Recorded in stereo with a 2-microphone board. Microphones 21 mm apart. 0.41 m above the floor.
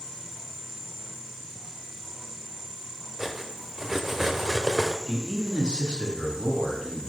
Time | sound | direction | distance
3.2 | cutlery clinking | 20° right (ahead or behind) | 0.8 m
5.1 | a man speaking | 45° right (ahead or behind) | 2.5 m